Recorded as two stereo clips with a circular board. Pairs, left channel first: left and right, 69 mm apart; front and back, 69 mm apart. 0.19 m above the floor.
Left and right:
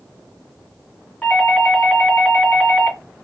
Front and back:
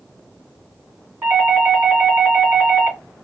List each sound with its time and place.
1.2 s a doorbell: 140° left, 1.8 m